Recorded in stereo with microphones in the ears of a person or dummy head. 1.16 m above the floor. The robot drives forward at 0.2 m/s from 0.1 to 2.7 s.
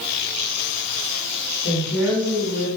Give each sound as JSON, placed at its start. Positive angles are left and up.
{"t": 1.6, "sound": "a woman speaking", "side_deg": 5, "distance_m": 1.6}